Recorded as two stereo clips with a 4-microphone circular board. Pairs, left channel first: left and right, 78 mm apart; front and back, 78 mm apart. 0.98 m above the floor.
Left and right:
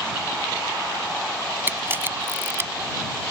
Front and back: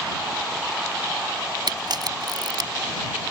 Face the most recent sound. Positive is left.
turn(degrees=-150)